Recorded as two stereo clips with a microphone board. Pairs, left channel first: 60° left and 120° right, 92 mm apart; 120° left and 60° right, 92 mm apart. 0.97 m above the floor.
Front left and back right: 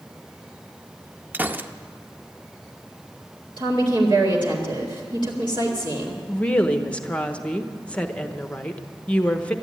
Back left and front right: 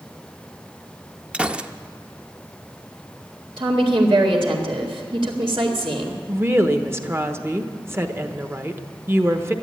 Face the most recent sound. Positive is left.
turn(degrees=-10)